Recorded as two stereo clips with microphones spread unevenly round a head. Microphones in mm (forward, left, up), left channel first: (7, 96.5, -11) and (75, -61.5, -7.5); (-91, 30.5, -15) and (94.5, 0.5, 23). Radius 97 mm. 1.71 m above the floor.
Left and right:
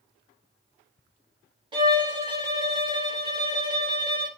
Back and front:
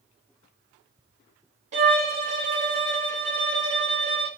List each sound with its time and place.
1.7 s a violin: 15° right, 0.9 m